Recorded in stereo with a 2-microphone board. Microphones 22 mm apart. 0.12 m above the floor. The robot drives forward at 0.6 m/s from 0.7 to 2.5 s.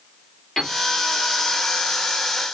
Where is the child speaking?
No child speaking in this recording.